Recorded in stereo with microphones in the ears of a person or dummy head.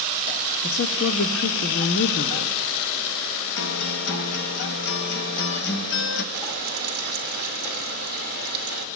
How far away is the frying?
About 1.1 m.